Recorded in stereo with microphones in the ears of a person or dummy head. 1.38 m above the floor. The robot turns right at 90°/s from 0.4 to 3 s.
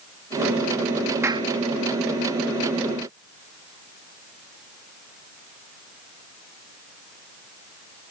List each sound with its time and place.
1.2 s a clap: 20° right (ahead or behind); by 1.5 s 45° right (ahead or behind)